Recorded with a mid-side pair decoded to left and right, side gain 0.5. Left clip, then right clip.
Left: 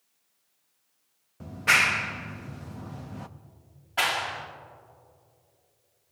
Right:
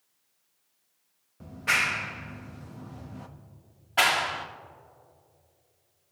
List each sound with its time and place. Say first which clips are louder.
1.4 s a clap: left 4 dB; 25° left, 0.8 m
4.0 s a clap: right 3 dB; 25° right, 1.9 m